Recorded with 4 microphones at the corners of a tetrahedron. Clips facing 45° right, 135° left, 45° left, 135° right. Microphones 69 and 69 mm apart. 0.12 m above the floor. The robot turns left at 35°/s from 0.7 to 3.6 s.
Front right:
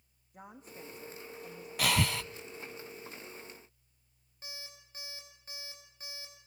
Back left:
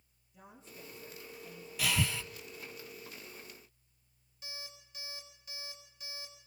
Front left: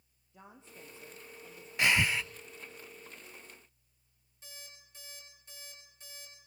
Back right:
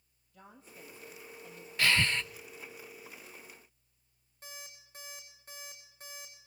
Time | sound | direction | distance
0.3 | a woman speaking | 15° right | 5 m
1.8 | breathing | 25° right | 0.6 m
4.4 | an alarm clock | 95° right | 7.5 m